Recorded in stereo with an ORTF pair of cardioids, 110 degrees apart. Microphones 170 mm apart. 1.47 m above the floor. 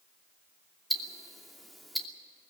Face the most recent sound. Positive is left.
turn(degrees=0)